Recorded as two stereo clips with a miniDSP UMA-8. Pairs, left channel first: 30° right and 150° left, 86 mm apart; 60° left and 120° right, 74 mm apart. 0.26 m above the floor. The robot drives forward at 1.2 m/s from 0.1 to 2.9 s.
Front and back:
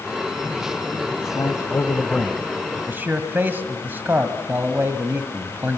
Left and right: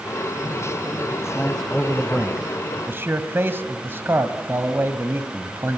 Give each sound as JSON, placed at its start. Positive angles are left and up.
{"t": 1.2, "sound": "a man speaking", "azimuth_deg": -15, "distance_m": 1.6}